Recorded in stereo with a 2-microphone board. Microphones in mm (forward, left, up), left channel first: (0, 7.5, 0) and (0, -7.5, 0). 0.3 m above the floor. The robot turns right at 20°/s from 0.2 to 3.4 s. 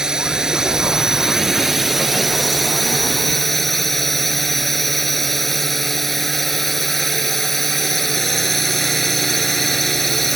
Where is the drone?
55° right; by 10.4 s 10° left.